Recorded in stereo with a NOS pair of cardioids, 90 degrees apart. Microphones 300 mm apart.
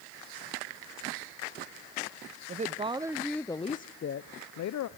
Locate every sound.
2.5 s a woman speaking: 25° right, 1.0 m; by 4.9 s 65° left, 1.0 m